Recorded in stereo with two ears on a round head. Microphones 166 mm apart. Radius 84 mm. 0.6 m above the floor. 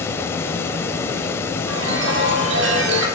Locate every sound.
0.0 s running water: 15° left (ahead or behind), 1.4 m
1.7 s a chime: 70° right (ahead or behind), 3.5 m